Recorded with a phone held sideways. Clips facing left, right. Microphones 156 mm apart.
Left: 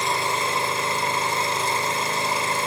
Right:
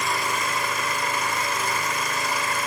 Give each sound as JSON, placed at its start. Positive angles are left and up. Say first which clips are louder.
{"t": 0.0, "sound": "an engine running", "louder": "left 2 dB", "side_deg": 30, "distance_m": 2.5}